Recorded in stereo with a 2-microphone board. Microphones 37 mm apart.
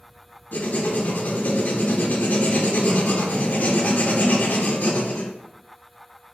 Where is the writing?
50° left (ahead or behind), 0.5 m.